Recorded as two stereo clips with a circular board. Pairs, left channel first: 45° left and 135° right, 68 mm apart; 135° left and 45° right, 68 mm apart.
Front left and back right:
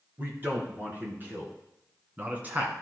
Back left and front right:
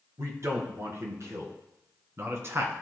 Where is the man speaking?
80° right, 3.5 m.